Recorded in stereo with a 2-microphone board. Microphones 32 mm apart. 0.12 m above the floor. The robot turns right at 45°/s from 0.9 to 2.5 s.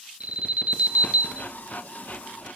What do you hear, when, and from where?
0.2 s an alarm: 45° right (ahead or behind), 3 m